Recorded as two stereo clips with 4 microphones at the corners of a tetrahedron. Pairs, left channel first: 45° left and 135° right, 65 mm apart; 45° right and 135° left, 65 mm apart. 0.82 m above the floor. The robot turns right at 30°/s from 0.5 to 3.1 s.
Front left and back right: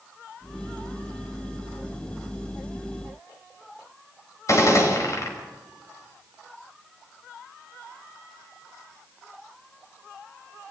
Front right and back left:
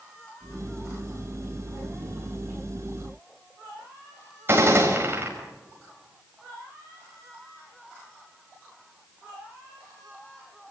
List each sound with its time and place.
4.5 s a gunshot: 80° left, 5.5 m